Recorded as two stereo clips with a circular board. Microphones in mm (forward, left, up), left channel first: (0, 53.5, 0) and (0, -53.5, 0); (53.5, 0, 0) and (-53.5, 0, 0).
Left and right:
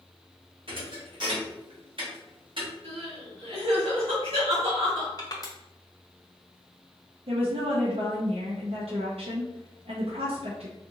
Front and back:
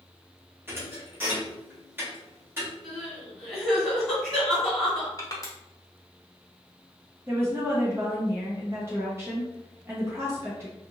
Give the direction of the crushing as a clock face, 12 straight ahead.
10 o'clock.